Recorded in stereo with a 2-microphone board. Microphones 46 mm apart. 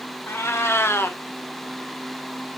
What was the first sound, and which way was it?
A cat meowing, 60° left (ahead or behind).